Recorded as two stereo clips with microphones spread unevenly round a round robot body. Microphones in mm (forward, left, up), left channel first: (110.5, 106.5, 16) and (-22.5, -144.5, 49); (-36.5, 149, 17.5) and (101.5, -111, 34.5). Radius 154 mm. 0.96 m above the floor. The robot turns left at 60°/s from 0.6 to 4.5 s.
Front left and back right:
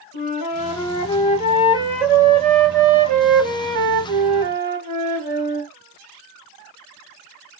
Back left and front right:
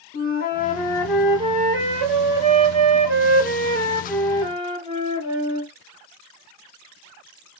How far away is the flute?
About 2 m.